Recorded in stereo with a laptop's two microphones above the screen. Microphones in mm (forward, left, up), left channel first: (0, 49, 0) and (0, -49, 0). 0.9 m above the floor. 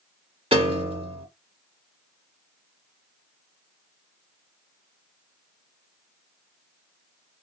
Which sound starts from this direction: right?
A piano, at 0.5 s.